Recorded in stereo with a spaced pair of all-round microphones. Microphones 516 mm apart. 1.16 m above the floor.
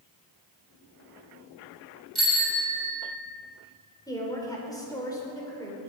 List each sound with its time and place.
2.1 s a bicycle bell: 65° right (ahead or behind), 3.5 m; by 3.2 s 80° right, 4 m
4.1 s a woman speaking: 5° left (ahead or behind), 4 m